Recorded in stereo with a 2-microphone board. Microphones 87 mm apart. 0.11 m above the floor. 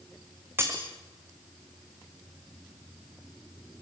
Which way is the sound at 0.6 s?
25° right (ahead or behind).